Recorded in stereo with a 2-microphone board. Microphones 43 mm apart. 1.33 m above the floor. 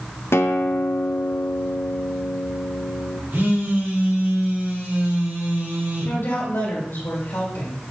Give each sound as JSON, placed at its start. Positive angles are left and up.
{"t": 0.3, "sound": "a guitar", "side_deg": 75, "distance_m": 0.6}
{"t": 3.3, "sound": "a phone buzzing", "side_deg": -65, "distance_m": 3.5}
{"t": 6.0, "sound": "a woman speaking", "side_deg": 70, "distance_m": 3.0}